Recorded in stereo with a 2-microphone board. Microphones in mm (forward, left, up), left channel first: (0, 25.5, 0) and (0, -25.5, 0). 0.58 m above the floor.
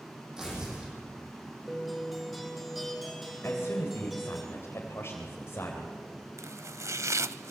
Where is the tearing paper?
10° right (ahead or behind), 9.5 m.